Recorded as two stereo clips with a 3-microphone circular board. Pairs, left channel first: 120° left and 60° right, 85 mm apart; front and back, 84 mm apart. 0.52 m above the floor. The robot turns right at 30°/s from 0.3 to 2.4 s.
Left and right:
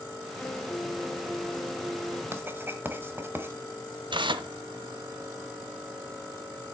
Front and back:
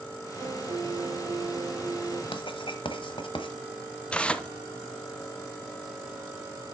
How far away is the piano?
About 1.0 m.